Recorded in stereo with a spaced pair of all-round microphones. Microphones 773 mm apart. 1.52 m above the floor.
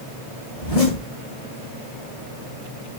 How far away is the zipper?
About 5 m.